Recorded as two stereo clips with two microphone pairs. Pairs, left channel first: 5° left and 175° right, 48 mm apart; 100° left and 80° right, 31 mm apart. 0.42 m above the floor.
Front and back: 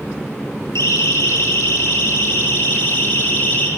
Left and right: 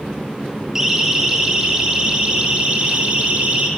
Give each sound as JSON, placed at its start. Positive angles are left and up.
{"t": 0.8, "sound": "a siren", "azimuth_deg": -5, "distance_m": 7.0}